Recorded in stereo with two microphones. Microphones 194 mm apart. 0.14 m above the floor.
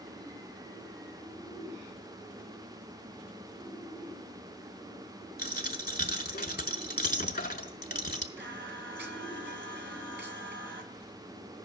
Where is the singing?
70° right (ahead or behind), 0.8 m.